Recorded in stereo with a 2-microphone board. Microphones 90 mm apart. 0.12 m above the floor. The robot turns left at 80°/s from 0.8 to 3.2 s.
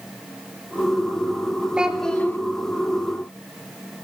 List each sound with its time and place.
1.8 s a child speaking: 165° right, 1.3 m; by 2.4 s 145° left, 1.3 m